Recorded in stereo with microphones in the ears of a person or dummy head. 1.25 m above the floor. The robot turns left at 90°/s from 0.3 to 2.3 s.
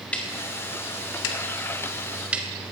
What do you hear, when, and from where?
0.1 s ticking: 10° left (ahead or behind), 1.7 m; by 2.5 s 10° right (ahead or behind), 1.7 m